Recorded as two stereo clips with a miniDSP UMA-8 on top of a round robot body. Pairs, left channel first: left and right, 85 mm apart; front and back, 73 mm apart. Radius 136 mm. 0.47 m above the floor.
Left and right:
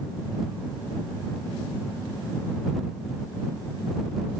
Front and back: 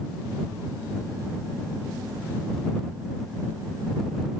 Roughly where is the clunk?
No clunk in this recording.